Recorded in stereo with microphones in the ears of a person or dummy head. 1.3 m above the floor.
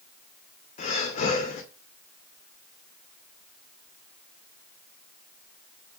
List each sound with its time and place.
0.8 s breathing: 40° left (ahead or behind), 2.0 m